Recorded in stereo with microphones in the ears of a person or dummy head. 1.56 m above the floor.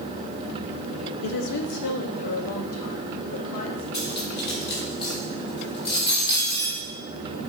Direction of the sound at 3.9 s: 65° left (ahead or behind).